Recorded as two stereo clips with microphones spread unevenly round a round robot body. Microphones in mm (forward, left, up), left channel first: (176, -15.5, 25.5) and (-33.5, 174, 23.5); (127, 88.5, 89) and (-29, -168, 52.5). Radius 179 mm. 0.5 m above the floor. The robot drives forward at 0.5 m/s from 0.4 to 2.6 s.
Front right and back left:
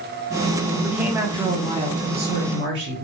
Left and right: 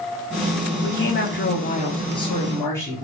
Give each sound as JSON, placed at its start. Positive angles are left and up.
{"t": 0.8, "sound": "a woman speaking", "azimuth_deg": 50, "distance_m": 1.0}